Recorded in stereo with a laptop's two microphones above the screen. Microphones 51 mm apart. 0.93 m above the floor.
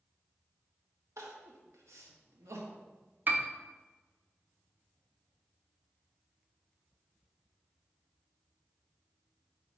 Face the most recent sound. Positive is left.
turn(degrees=-45)  # may be behind; listen again after turning